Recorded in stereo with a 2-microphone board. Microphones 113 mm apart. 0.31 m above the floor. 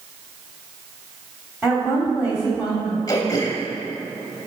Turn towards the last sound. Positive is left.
turn(degrees=35)  # may be behind; listen again after turning